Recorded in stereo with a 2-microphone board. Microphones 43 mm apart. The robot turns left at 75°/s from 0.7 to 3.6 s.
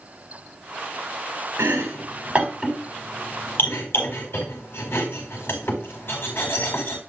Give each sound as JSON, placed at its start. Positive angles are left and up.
{"t": 1.6, "sound": "chopping", "side_deg": -85, "distance_m": 4.5}